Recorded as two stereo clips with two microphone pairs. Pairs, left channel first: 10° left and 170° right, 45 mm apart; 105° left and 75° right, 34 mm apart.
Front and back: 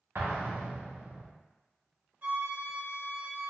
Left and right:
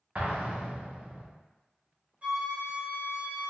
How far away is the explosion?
About 0.5 m.